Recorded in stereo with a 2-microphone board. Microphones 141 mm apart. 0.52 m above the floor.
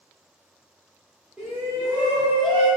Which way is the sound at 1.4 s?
5° right (ahead or behind).